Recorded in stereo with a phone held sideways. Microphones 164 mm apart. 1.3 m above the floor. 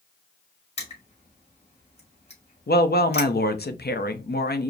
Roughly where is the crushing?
Left.